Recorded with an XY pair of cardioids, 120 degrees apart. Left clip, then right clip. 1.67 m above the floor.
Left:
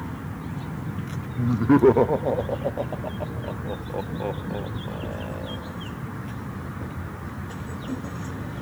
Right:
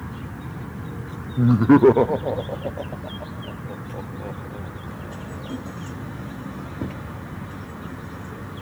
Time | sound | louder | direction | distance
1.4 | laughter | right 4 dB | 50° right | 0.6 m